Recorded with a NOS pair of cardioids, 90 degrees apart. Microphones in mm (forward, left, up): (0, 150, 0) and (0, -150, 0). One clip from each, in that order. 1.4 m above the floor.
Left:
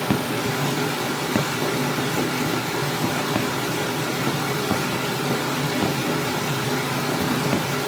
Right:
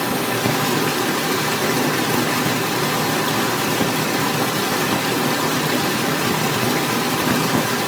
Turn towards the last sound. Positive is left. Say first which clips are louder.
# right 4 dB
turn(degrees=-65)